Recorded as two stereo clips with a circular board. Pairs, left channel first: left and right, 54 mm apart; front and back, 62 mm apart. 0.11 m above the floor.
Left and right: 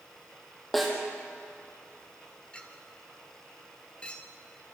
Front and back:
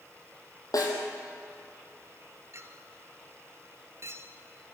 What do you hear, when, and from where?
0.7 s a snare drum: 5° left, 4.5 m
2.5 s a clink: 155° left, 1.8 m